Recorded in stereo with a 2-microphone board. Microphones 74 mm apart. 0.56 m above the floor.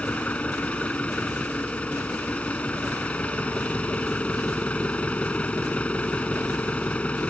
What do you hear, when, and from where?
0.0 s an engine running: 20° left (ahead or behind)